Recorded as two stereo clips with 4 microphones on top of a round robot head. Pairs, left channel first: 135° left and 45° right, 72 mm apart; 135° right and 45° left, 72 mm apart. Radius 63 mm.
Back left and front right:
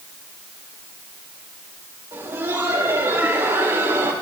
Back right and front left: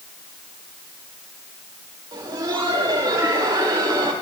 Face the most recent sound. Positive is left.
turn(degrees=15)